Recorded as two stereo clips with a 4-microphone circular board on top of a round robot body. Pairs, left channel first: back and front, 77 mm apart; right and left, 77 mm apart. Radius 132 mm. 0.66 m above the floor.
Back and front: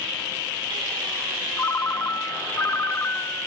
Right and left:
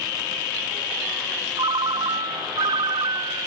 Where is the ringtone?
120° left, 0.6 m.